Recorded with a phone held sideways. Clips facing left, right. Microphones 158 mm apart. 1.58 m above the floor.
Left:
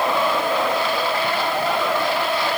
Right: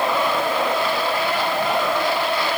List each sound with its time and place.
Only background noise.